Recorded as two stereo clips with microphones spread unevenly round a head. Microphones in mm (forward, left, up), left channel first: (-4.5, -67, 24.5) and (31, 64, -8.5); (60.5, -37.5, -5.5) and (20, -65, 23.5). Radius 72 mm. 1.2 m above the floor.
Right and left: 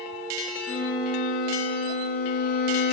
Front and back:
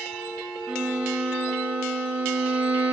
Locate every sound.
0.7 s a violin: 85° right, 6 m